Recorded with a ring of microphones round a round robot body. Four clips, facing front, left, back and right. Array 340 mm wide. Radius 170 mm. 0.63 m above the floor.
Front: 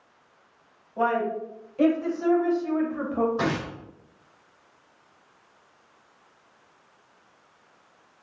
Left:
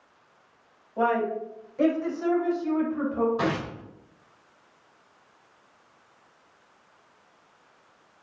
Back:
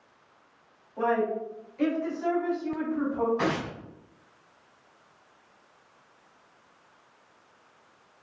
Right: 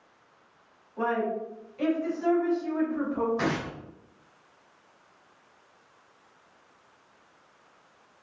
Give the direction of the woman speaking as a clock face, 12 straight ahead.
10 o'clock.